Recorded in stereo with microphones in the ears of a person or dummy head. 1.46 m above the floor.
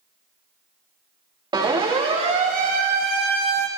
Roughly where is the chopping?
I don't hear chopping.